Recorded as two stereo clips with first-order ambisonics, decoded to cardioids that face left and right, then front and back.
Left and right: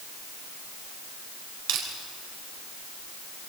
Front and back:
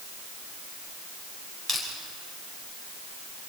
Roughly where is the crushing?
Right.